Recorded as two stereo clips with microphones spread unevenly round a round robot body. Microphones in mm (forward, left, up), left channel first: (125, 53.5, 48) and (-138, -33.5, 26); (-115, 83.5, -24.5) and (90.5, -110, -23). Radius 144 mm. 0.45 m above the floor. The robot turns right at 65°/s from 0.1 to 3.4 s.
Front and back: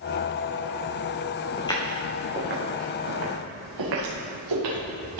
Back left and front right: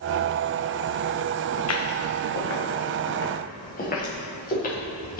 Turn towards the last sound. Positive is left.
turn(degrees=-165)